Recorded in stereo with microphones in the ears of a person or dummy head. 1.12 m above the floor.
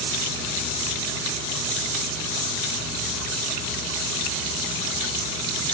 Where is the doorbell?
I don't hear a doorbell.